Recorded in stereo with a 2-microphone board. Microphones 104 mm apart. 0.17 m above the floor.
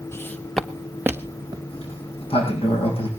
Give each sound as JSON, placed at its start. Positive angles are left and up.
{"t": 0.1, "sound": "footsteps", "side_deg": 25, "distance_m": 0.9}
{"t": 1.7, "sound": "a sliding door", "side_deg": 65, "distance_m": 4.0}